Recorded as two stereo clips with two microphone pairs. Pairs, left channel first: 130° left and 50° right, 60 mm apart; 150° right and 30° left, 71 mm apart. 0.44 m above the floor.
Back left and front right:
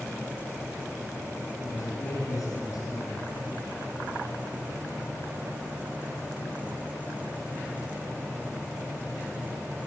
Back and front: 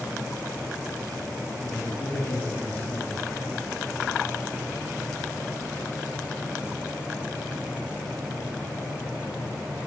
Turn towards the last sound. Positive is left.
turn(degrees=135)